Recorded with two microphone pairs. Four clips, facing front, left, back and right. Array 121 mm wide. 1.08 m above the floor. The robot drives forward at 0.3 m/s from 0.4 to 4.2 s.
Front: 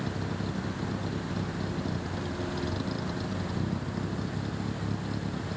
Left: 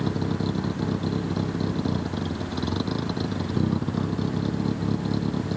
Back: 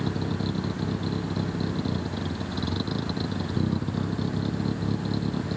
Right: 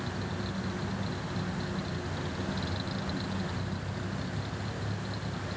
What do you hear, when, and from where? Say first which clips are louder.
0.0 s a vehicle: left 10 dB, back 5 dB; 110° left; by 5.6 s 115° left